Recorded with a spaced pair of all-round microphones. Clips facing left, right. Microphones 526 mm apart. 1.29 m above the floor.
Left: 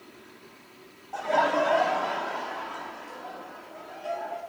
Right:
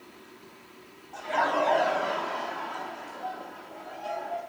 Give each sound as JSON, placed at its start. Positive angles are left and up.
{"t": 1.1, "sound": "laughter", "side_deg": 75, "distance_m": 0.5}